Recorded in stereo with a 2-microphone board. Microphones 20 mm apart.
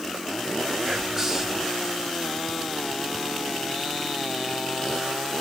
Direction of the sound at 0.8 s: 20° right (ahead or behind).